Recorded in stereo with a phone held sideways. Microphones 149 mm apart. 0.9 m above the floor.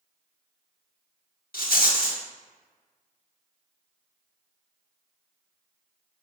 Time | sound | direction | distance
1.5 | a rattle | 80° left | 0.8 m